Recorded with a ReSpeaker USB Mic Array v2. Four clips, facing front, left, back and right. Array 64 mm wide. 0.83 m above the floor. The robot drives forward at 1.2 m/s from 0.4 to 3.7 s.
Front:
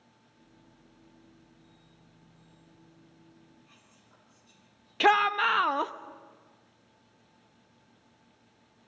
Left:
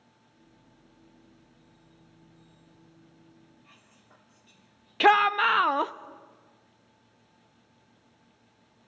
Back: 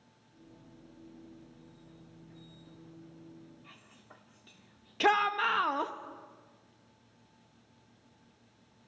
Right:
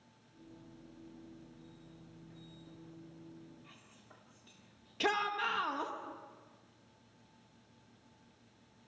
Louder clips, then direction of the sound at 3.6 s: Left 1 dB, back 4 dB; 170° right.